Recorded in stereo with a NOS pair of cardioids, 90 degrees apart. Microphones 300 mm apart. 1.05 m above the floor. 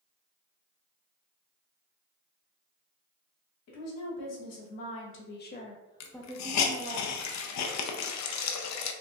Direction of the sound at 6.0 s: 65° left.